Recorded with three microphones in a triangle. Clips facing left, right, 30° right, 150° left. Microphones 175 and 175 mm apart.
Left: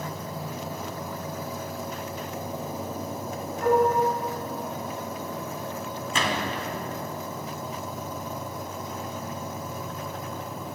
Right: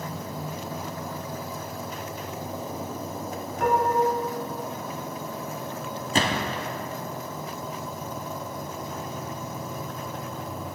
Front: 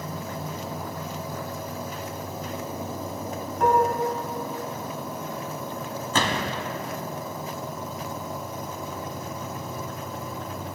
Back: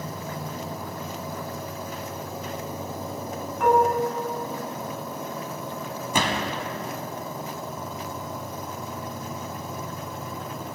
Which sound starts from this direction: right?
Dishes clattering, at 3.6 s.